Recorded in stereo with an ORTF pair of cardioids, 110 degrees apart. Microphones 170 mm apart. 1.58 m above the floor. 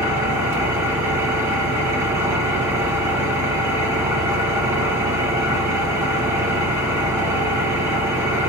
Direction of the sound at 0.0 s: 15° right.